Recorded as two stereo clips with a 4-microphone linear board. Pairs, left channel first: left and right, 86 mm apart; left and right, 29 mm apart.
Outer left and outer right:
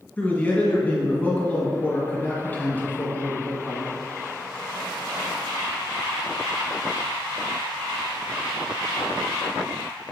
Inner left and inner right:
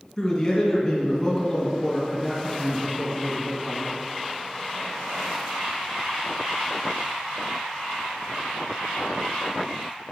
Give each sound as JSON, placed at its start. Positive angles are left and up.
{"t": 0.2, "sound": "a man speaking", "side_deg": 20, "distance_m": 2.0}